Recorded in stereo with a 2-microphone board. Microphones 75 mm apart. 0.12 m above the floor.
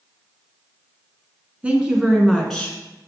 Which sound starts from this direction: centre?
A woman speaking, at 1.6 s.